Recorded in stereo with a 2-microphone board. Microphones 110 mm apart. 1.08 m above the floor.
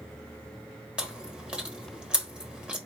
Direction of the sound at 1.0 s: 10° right (ahead or behind).